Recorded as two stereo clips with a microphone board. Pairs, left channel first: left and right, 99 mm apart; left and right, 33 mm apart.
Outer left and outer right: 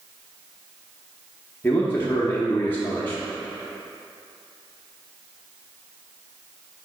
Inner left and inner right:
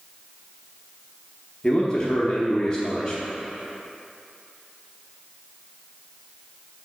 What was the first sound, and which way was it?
A man speaking, 20° left (ahead or behind).